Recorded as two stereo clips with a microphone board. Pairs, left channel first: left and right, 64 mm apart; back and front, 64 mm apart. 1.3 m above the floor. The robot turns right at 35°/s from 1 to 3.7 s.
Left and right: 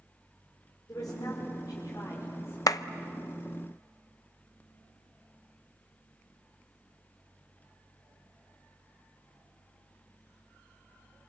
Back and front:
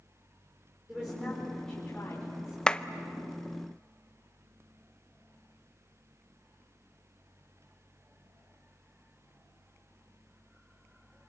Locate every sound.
0.9 s a woman speaking: 75° left, 5 m; by 2.6 s 130° left, 5 m
2.7 s a clap: 105° left, 0.7 m; by 2.8 s 110° left, 0.7 m